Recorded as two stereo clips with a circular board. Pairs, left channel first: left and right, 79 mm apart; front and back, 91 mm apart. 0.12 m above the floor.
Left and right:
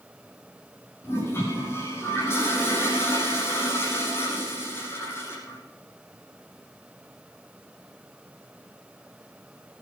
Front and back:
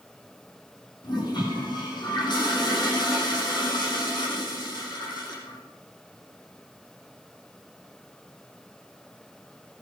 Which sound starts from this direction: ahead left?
A toilet flushing, at 1.0 s.